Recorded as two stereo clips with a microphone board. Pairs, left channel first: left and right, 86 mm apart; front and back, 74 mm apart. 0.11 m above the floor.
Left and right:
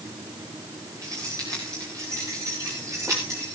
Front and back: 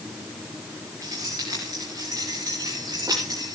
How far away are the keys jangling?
About 9.5 m.